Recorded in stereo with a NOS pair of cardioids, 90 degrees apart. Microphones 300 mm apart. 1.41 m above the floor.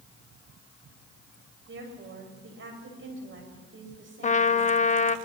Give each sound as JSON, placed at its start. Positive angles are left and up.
{"t": 1.7, "sound": "a woman speaking", "azimuth_deg": -40, "distance_m": 7.5}
{"t": 4.2, "sound": "a trumpet", "azimuth_deg": 25, "distance_m": 1.1}